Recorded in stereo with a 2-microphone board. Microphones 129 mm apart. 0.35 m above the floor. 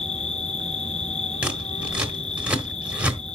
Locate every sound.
0.0 s an insect: 65° left (ahead or behind), 1.3 m
1.4 s scissors: 10° right (ahead or behind), 1.4 m